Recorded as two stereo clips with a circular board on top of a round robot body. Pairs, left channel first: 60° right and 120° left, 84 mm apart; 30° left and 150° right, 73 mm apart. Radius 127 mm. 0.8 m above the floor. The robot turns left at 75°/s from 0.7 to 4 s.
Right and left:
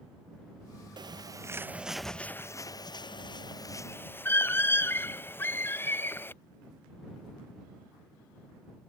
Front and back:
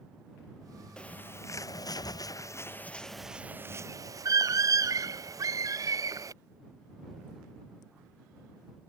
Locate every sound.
1.0 s a bird: 105° left; by 6.3 s 120° right